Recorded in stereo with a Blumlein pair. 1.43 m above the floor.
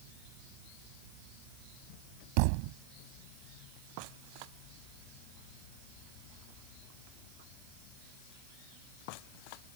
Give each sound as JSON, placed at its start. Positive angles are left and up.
{"t": 2.4, "sound": "a thud", "azimuth_deg": -45}